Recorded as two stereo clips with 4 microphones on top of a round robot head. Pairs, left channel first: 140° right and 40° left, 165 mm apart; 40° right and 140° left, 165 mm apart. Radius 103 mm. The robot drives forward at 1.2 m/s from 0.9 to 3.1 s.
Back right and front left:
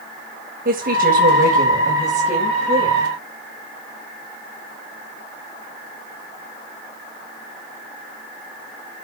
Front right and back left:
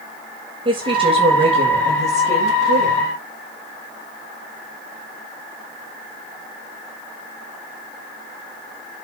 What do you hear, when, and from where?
0.7 s a woman speaking: 80° left, 7 m; by 3.1 s 100° left, 7 m